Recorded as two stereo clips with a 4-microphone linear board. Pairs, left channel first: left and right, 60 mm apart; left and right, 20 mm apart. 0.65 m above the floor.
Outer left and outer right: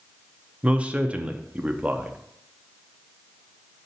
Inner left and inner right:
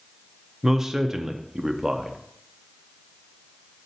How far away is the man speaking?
About 0.6 m.